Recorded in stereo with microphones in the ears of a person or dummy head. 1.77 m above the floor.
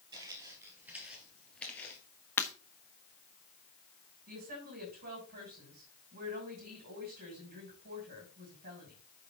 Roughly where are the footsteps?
Centre.